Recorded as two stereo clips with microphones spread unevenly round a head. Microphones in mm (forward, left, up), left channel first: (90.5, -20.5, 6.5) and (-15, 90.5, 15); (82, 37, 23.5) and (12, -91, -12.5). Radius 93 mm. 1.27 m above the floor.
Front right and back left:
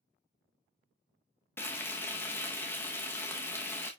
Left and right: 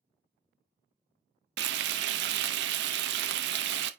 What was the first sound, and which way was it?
Frying, 125° right.